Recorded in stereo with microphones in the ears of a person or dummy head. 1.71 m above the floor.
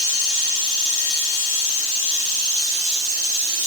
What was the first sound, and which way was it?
Only background noise.